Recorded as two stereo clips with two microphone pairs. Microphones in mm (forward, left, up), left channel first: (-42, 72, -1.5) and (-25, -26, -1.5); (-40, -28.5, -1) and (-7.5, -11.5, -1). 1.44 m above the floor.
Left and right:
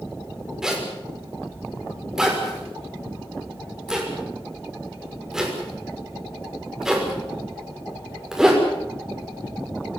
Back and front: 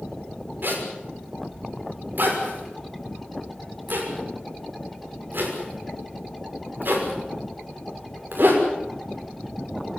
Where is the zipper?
5° left, 6 m.